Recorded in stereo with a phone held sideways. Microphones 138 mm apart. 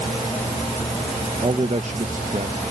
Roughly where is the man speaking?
Right.